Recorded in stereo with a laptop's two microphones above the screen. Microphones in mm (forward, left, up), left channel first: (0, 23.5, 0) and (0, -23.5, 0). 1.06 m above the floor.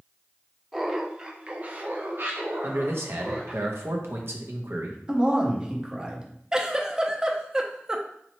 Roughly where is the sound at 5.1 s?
Right.